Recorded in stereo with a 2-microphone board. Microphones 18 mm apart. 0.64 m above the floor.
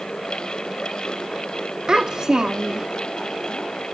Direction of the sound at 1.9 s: 45° right (ahead or behind).